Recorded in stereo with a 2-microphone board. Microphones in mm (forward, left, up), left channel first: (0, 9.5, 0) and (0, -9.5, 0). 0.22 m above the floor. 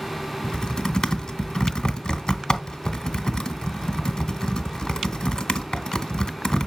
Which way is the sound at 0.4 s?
50° left (ahead or behind).